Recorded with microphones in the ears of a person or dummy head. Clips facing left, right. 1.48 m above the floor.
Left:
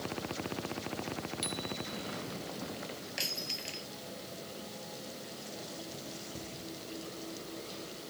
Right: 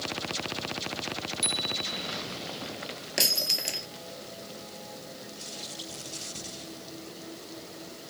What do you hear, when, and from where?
1.4 s a bicycle bell: 10° left (ahead or behind)
3.2 s breaking glass: 65° right (ahead or behind)